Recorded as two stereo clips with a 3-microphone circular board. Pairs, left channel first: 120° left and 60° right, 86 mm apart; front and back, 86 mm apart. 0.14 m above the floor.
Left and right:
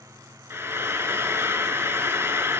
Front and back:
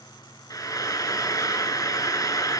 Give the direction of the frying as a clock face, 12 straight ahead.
12 o'clock.